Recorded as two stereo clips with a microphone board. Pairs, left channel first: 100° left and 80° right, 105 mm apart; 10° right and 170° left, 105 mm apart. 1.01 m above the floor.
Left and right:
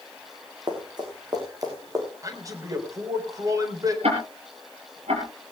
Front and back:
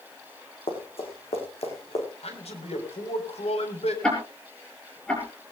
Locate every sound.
0.7 s running footsteps: 35° right, 5.5 m; by 2.0 s 20° right, 5.5 m
2.2 s a man speaking: 20° right, 4 m
4.0 s ticking: 95° right, 5 m